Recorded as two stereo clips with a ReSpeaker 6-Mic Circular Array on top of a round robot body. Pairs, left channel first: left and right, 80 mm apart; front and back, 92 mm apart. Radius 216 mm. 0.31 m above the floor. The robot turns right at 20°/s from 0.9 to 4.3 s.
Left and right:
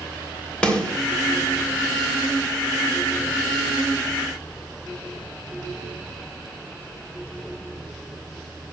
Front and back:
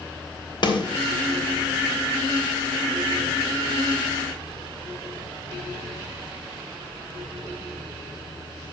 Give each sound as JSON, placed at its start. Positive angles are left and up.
{"t": 0.6, "sound": "a snare drum", "azimuth_deg": 15, "distance_m": 2.5}